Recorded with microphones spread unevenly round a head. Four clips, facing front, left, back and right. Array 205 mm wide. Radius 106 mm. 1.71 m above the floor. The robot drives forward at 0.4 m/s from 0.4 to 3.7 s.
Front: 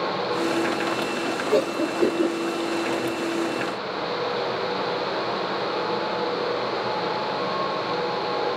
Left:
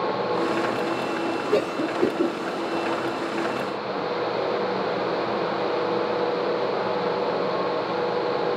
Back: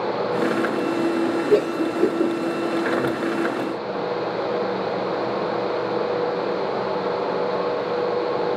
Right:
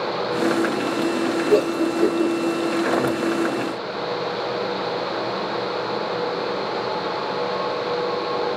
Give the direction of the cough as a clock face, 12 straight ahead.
5 o'clock.